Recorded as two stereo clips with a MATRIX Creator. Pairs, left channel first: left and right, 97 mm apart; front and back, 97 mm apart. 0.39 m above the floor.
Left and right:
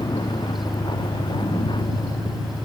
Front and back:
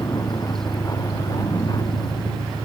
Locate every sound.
0.0 s a vehicle: 50° left